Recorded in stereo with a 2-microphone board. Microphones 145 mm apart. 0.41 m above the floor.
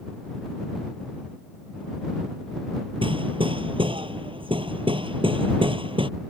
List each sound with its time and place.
3.0 s hammering: 35° right (ahead or behind)